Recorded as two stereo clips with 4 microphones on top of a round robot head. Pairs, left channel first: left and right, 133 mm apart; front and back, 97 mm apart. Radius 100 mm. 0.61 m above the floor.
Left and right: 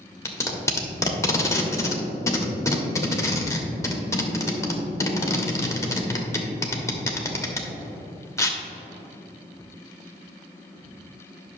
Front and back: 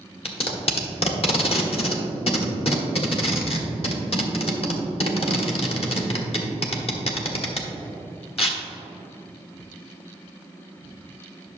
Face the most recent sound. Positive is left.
turn(degrees=20)